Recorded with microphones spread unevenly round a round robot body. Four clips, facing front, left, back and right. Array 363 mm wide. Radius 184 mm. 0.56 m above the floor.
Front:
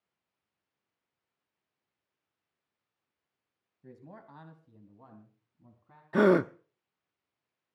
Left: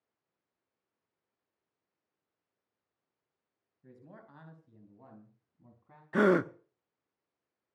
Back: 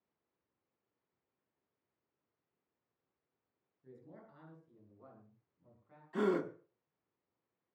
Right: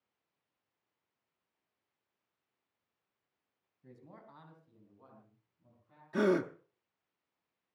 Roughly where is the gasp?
Ahead.